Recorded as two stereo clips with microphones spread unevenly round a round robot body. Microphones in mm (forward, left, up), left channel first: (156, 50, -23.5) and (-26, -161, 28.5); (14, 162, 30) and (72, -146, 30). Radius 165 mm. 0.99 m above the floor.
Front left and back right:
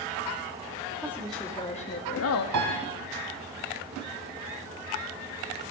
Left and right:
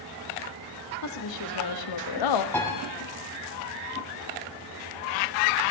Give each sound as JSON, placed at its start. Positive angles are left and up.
{"t": 1.0, "sound": "a woman speaking", "azimuth_deg": 145, "distance_m": 1.7}
{"t": 2.5, "sound": "a piano", "azimuth_deg": -175, "distance_m": 3.5}